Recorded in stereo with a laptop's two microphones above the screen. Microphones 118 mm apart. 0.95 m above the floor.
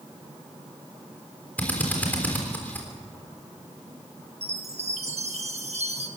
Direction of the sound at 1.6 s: 15° left (ahead or behind).